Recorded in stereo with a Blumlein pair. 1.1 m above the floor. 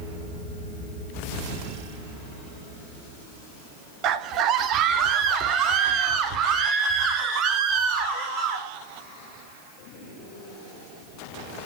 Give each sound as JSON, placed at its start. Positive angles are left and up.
{"t": 4.0, "sound": "a scream", "azimuth_deg": -35, "distance_m": 1.6}